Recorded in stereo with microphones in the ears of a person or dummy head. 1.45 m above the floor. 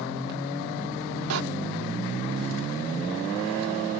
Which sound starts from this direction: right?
A door slam, at 1.3 s.